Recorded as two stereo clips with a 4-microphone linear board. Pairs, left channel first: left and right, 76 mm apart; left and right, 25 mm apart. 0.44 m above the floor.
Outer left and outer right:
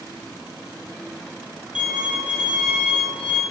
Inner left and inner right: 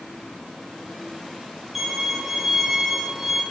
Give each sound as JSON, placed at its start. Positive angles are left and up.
{"t": 1.8, "sound": "a violin", "side_deg": -10, "distance_m": 5.0}